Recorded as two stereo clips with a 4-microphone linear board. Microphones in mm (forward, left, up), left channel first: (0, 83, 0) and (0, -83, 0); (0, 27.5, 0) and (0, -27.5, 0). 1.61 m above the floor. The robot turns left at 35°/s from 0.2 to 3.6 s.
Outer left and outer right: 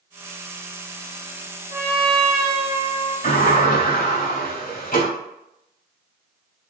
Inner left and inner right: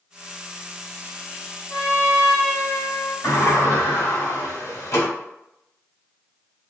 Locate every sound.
1.7 s a trumpet: 105° left, 1.9 m; by 3.1 s 50° left, 1.9 m
3.2 s a sliding door: 60° left (ahead or behind), 2.5 m